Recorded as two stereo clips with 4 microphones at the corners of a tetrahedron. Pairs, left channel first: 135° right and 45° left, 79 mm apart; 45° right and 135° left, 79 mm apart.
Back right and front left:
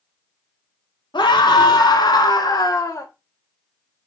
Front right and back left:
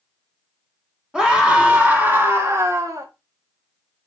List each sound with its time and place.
1.1 s a scream: 130° right, 2 m; by 3.1 s 175° left, 1.7 m